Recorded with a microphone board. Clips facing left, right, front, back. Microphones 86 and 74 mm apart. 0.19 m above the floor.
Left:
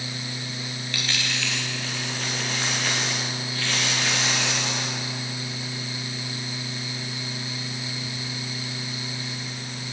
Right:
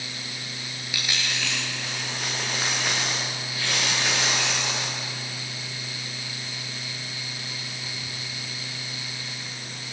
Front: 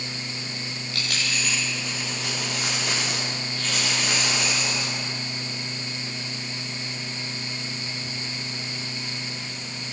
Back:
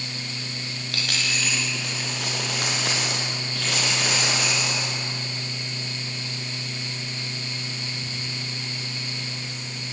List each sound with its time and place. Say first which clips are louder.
0.9 s a dropped coin: even, back 1 dB; 170° right, 8.5 m